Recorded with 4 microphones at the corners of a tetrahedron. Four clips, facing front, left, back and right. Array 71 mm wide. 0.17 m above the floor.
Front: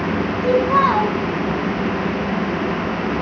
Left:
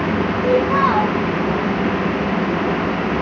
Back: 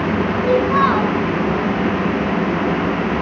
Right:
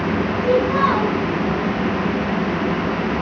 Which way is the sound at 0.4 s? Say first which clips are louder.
Left 1 dB, front 1 dB; 35° left.